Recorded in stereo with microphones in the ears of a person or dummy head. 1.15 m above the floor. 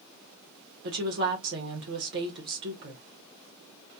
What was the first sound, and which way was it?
A woman speaking, 55° right (ahead or behind).